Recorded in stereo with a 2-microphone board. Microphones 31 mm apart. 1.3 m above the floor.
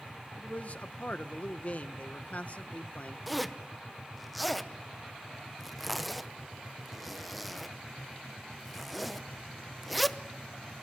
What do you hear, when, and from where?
0.4 s a man speaking: 50° left (ahead or behind), 1.0 m
3.3 s a zipper: centre (ahead or behind), 0.6 m